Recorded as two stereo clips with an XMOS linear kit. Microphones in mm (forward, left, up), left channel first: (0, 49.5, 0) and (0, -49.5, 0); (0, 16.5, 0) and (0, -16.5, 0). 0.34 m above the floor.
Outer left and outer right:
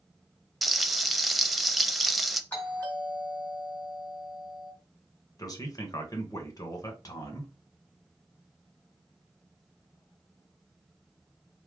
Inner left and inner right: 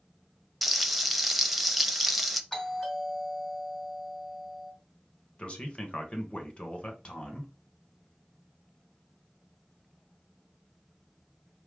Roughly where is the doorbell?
Centre.